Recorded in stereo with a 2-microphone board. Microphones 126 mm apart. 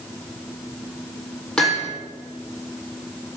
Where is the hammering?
5° left (ahead or behind), 6.5 m.